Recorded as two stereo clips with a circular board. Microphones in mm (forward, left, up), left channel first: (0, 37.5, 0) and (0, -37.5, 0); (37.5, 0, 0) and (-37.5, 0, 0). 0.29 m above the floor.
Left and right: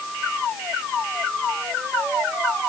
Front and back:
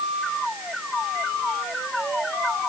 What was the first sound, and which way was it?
Only background noise.